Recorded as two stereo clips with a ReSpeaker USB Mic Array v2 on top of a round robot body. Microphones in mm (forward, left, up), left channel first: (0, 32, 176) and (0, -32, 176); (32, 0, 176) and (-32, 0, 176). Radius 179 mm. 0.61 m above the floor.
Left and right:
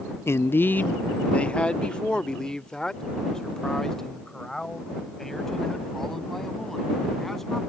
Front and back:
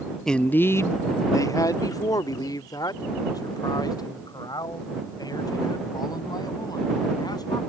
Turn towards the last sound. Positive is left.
turn(degrees=5)